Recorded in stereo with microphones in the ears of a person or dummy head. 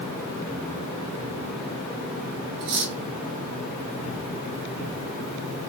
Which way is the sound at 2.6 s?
60° right (ahead or behind).